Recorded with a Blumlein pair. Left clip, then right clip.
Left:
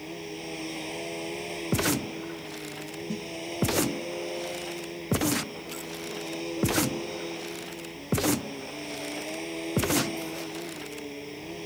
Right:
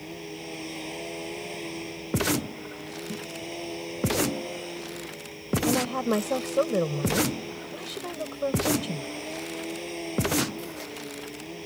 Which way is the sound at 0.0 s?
5° left.